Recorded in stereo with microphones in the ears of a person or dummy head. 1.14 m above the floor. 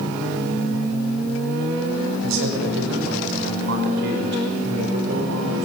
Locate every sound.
2.2 s a man speaking: 75° right (ahead or behind), 6.5 m; by 5.7 s 60° right (ahead or behind), 4.5 m